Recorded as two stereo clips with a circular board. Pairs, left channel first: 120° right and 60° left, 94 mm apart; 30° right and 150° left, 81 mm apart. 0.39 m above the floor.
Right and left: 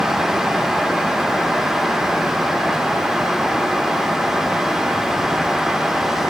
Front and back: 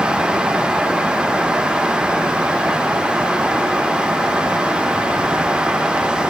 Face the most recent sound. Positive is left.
No sound to turn to.